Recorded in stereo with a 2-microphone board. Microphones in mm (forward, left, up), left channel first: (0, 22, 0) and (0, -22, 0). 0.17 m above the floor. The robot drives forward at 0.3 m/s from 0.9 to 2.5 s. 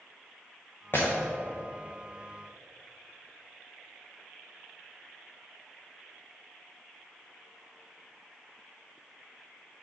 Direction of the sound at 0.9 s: 50° left (ahead or behind).